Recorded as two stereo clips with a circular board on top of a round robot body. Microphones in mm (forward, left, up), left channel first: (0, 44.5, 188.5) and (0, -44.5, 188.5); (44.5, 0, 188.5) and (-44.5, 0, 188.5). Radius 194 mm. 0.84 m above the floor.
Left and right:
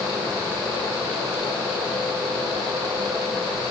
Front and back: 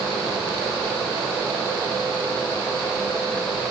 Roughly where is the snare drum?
No snare drum in this recording.